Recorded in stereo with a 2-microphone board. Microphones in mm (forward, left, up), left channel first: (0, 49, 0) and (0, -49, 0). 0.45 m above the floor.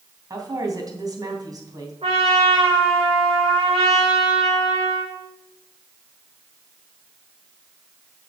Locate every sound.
0.3 s a woman speaking: 40° right (ahead or behind), 3 m
2.0 s a trumpet: 85° right, 6 m